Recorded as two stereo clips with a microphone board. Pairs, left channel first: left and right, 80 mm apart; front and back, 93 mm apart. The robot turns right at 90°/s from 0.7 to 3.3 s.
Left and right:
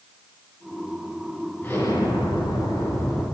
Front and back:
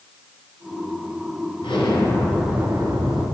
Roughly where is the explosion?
Ahead.